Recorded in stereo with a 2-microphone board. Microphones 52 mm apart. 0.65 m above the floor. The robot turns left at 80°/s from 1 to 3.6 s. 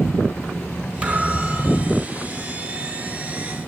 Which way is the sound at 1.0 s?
155° right.